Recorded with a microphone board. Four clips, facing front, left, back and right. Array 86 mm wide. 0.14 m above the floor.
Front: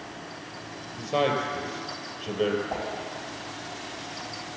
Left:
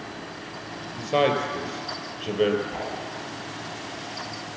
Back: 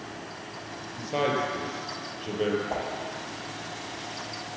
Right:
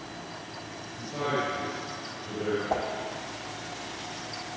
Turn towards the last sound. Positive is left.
turn(degrees=-110)